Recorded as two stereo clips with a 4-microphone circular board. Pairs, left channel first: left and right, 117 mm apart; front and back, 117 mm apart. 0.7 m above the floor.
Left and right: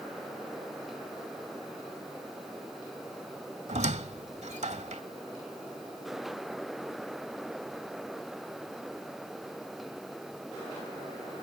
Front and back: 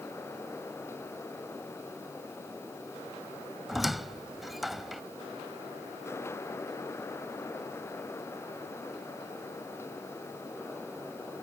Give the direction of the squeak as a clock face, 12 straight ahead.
3 o'clock.